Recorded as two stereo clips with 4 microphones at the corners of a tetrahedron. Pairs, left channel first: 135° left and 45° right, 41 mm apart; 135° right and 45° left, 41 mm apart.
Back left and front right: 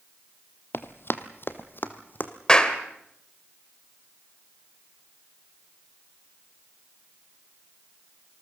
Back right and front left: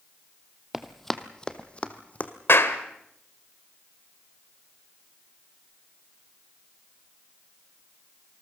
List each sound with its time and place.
0.7 s running footsteps: 130° left, 1.2 m; by 2.3 s 175° left, 1.9 m
2.5 s a clap: 155° right, 1.7 m